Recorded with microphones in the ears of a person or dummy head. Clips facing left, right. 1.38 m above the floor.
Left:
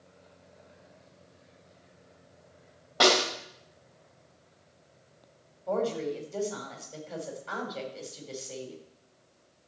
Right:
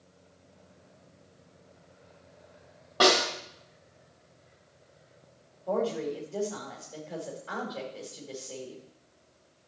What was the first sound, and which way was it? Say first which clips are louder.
A snare drum: right 1 dB; centre (ahead or behind).